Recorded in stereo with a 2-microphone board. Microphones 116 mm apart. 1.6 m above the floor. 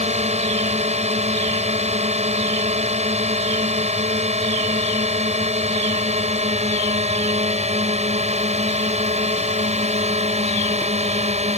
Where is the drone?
70° right (ahead or behind).